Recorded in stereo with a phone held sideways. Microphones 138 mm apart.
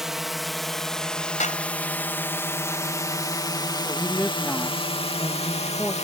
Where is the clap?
60° left (ahead or behind).